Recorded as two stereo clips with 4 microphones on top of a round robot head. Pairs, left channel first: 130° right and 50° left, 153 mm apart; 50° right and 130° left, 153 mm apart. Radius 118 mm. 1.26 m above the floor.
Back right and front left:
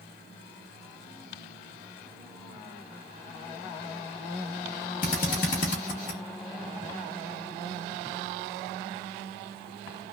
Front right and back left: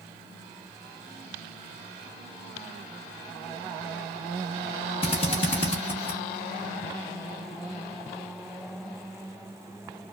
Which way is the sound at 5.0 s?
100° right.